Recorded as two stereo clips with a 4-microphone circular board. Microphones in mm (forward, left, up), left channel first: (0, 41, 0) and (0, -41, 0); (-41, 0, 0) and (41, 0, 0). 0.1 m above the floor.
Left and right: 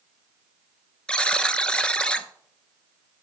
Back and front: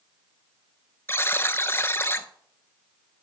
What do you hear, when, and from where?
1.1 s a buzzer: 155° left, 0.7 m